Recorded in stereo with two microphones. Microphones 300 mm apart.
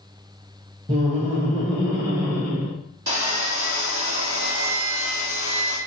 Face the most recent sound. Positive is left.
turn(degrees=-60)  # may be behind; listen again after turning